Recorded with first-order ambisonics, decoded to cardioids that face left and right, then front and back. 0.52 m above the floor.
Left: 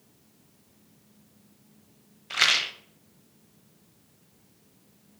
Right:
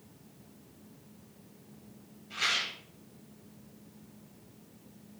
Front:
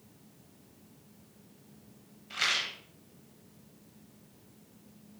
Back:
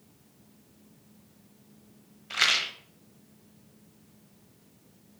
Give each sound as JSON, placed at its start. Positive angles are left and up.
{"t": 2.3, "sound": "a rattle", "azimuth_deg": 120, "distance_m": 0.6}